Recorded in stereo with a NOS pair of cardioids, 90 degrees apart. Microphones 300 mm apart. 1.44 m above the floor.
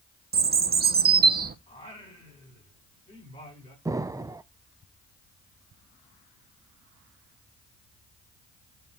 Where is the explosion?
10° right, 0.5 m.